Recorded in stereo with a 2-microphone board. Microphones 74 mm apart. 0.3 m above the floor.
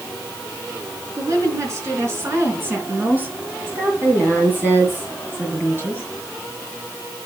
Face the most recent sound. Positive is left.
turn(degrees=-30)  # may be behind; listen again after turning